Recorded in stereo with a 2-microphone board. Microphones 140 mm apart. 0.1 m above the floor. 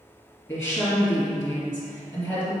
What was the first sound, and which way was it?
A woman speaking, 15° left (ahead or behind).